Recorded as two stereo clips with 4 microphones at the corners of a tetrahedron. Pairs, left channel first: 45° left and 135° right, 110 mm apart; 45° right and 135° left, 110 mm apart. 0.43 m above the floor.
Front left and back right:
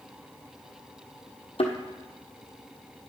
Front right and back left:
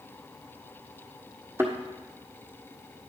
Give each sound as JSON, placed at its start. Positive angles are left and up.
{"t": 1.6, "sound": "a thud", "azimuth_deg": 65, "distance_m": 1.4}